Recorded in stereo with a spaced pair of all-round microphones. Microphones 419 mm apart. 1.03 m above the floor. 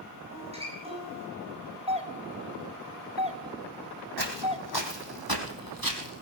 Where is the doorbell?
15° right (ahead or behind), 1.1 m.